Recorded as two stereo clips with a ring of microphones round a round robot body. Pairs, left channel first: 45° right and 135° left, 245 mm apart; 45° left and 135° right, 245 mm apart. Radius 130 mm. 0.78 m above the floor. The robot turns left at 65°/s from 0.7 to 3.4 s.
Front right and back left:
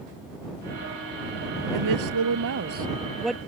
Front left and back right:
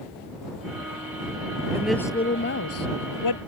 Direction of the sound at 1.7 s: 145° left.